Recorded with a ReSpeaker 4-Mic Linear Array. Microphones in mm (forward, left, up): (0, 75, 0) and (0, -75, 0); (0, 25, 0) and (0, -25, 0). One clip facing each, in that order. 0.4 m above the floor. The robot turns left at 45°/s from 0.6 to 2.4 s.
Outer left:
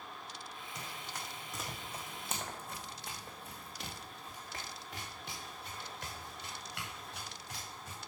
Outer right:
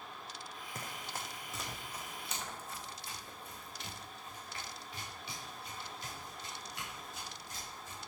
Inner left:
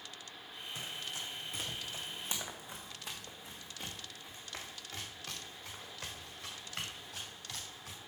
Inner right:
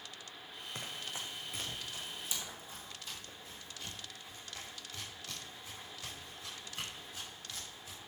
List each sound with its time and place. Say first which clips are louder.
0.8 s running footsteps: outer right 2 dB, even; 55° right (ahead or behind), 1.7 m; by 8.0 s 80° left, 5.5 m